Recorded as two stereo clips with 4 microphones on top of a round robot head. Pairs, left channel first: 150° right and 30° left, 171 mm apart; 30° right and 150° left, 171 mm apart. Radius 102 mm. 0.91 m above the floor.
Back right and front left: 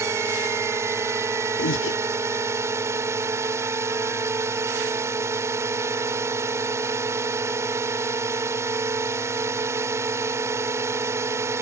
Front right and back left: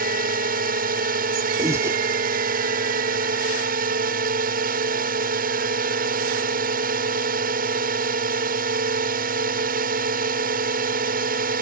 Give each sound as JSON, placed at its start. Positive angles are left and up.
{"t": 0.0, "sound": "a drone", "azimuth_deg": 110}
{"t": 1.6, "sound": "breathing", "azimuth_deg": -135}